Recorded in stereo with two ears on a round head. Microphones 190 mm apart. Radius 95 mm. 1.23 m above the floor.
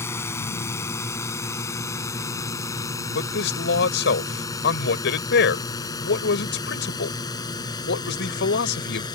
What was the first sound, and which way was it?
A drone, 10° left (ahead or behind).